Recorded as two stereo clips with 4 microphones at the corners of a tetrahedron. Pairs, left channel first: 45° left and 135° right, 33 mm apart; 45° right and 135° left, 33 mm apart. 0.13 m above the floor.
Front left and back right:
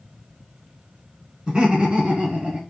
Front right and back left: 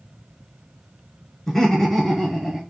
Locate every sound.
1.5 s laughter: 110° right, 1.4 m; by 2.6 s 145° right, 1.9 m